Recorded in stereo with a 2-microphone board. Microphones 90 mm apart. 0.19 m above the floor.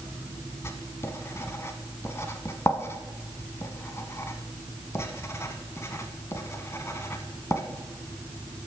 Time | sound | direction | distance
0.6 | writing | 30° left (ahead or behind) | 0.9 m